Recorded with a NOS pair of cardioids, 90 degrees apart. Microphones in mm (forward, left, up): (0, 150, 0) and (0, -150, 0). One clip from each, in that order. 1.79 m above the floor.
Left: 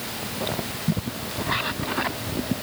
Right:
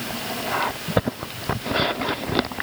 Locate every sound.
Only background noise.